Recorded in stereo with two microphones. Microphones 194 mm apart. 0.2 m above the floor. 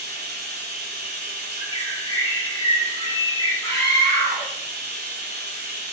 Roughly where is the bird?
Right.